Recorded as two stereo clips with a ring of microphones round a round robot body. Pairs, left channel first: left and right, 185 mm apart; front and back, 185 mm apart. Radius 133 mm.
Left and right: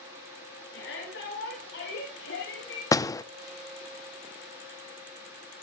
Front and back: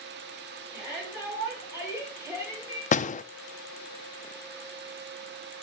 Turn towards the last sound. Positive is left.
turn(degrees=25)